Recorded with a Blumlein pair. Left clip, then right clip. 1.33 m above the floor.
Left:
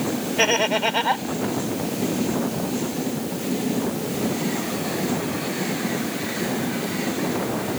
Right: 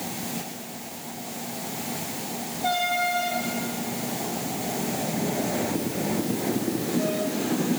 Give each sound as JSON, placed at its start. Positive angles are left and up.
{"t": 0.4, "sound": "laughter", "azimuth_deg": 45}